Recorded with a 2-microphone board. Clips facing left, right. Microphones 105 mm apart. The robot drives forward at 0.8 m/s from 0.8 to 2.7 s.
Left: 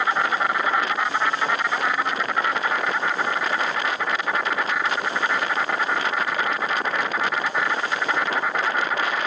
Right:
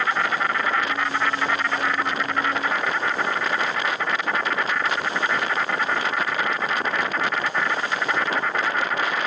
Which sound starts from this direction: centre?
An insect, at 0.0 s.